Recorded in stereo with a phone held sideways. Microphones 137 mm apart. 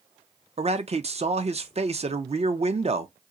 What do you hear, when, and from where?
0.6 s a man speaking: 50° right (ahead or behind), 0.6 m